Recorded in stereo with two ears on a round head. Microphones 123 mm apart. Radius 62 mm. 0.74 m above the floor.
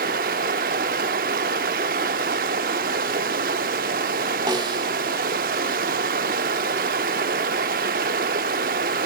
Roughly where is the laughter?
No laughter in this recording.